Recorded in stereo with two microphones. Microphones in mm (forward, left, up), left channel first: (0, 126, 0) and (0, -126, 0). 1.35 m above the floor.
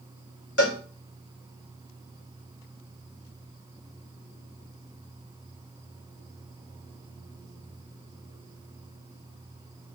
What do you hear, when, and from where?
0.6 s a cowbell: 80° left, 1.9 m